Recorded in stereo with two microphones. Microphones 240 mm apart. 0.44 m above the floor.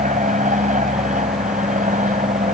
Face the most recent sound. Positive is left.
turn(degrees=-30)  # may be behind; listen again after turning